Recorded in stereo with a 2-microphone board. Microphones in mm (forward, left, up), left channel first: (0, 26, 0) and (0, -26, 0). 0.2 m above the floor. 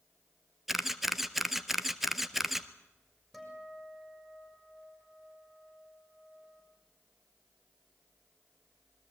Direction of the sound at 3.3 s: 10° right (ahead or behind).